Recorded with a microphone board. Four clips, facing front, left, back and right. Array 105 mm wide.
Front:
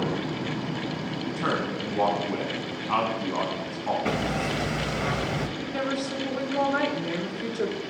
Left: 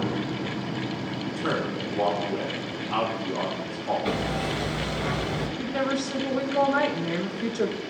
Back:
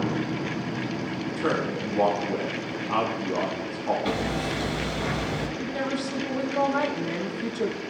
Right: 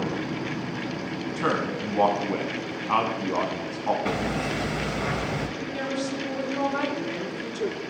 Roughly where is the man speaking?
Right.